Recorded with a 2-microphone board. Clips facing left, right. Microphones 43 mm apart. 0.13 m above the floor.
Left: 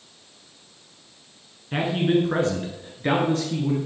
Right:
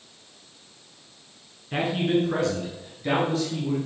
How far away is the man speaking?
About 1.2 m.